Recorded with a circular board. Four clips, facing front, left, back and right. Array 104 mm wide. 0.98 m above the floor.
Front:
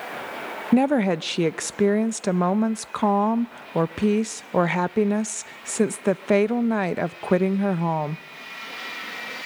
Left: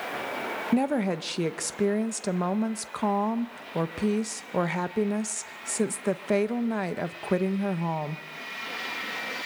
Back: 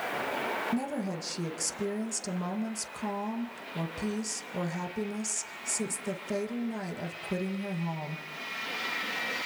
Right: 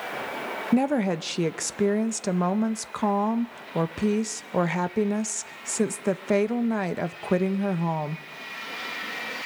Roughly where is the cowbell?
I don't hear a cowbell.